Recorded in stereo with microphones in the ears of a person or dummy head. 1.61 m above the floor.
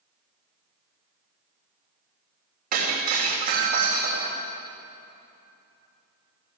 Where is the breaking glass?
60° right (ahead or behind), 2.5 m.